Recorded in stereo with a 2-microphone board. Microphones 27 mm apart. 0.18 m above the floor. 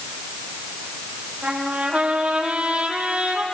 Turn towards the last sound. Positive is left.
turn(degrees=-60)  # may be behind; listen again after turning